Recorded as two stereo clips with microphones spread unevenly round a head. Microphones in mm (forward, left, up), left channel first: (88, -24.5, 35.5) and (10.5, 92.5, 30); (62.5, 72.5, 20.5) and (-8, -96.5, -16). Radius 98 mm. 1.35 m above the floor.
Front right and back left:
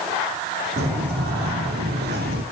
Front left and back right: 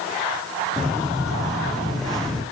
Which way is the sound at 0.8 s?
155° left.